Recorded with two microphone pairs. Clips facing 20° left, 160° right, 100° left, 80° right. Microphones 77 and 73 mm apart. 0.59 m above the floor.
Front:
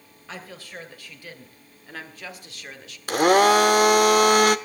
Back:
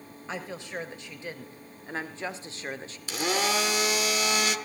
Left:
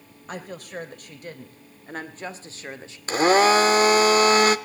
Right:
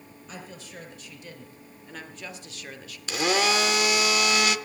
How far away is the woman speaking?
About 3 m.